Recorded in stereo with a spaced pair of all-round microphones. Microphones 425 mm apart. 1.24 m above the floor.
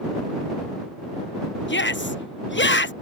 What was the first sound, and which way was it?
A shout, 25° left (ahead or behind).